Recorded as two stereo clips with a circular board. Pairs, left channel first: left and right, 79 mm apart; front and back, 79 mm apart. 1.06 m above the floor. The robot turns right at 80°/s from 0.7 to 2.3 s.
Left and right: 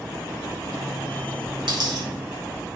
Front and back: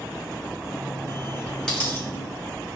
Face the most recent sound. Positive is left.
turn(degrees=-30)